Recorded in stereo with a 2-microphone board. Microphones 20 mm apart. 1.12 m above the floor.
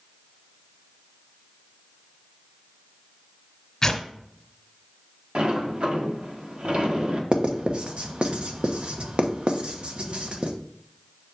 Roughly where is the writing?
Right.